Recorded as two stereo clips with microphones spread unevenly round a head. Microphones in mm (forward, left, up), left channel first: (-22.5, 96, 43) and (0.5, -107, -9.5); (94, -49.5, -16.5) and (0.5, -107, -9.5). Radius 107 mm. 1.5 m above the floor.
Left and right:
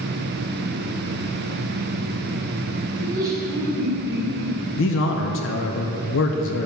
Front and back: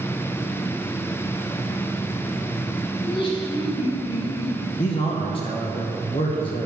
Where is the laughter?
10° right, 1.8 m.